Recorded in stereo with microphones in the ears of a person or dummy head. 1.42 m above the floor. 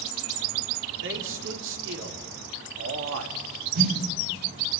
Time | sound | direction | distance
1.0 | a man speaking | 70° right (ahead or behind) | 5 m
3.8 | a snare drum | 70° right (ahead or behind) | 5.5 m